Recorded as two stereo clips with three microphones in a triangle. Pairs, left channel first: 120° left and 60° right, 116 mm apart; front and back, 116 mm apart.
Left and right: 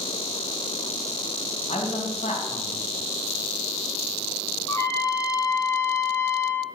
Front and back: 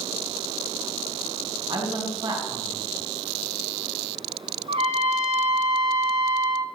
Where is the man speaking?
140° left, 2.5 m.